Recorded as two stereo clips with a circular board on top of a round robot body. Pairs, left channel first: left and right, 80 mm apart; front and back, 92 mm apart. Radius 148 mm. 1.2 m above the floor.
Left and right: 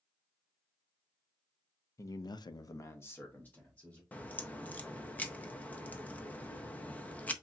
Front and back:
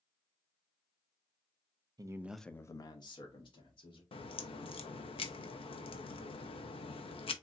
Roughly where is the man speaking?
Behind left.